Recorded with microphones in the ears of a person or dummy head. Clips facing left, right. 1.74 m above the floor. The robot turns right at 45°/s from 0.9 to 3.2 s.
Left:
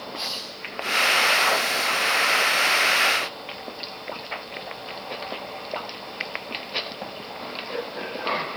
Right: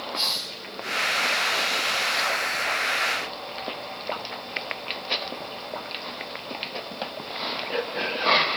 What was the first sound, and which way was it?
A hiss, 25° right (ahead or behind).